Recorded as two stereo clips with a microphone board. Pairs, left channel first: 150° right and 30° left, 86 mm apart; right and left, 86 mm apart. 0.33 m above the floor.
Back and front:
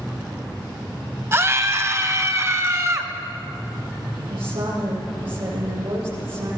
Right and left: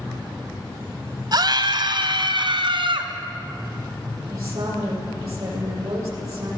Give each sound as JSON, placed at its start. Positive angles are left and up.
{"t": 1.3, "sound": "a scream", "azimuth_deg": 80, "distance_m": 2.0}
{"t": 4.3, "sound": "a woman speaking", "azimuth_deg": 35, "distance_m": 9.0}